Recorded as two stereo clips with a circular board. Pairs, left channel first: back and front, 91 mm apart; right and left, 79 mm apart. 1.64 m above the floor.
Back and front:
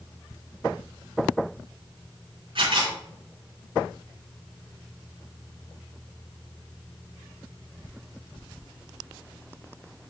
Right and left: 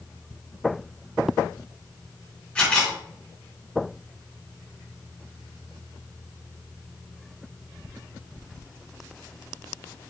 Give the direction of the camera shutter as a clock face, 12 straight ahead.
1 o'clock.